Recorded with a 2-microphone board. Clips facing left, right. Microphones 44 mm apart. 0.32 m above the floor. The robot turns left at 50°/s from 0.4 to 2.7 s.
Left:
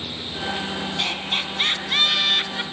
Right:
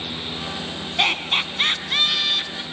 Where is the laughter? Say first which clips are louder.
Right 7 dB; 135° right, 3 m; by 2.6 s 145° left, 3 m.